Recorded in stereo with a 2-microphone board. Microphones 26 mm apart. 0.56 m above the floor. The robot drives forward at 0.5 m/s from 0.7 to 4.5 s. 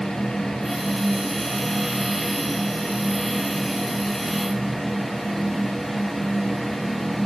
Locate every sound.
Only background noise.